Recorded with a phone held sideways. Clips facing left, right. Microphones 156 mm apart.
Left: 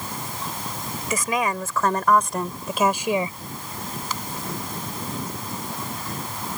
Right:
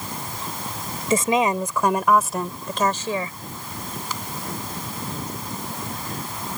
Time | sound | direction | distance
1.1 | a woman speaking | 30° right (ahead or behind) | ?